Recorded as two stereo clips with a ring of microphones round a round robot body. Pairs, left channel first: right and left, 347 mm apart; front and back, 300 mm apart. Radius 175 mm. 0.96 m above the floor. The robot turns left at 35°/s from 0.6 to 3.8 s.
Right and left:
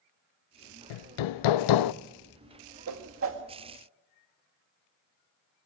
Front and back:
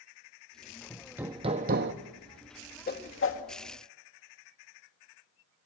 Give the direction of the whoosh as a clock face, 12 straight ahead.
10 o'clock.